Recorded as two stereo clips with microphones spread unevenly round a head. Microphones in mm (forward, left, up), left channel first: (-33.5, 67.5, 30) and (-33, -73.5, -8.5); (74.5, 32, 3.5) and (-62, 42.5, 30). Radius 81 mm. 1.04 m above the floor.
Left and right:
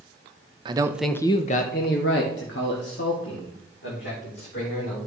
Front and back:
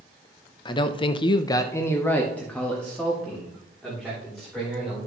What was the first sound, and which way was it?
A man speaking, 50° right.